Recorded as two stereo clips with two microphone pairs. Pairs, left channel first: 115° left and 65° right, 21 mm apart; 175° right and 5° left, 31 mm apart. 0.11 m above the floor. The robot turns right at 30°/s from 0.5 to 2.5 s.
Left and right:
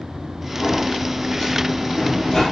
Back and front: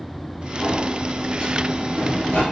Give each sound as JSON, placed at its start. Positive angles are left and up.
{"t": 0.6, "sound": "a sliding door", "azimuth_deg": 100, "distance_m": 2.0}